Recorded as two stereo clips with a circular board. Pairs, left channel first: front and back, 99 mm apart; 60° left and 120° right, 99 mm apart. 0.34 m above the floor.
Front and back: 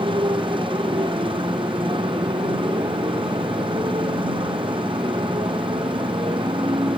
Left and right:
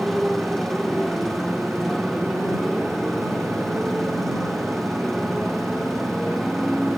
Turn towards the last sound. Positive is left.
turn(degrees=150)